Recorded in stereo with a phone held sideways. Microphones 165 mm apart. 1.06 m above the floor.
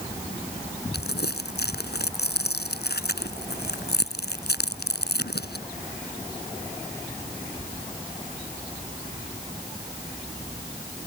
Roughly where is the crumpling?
Left.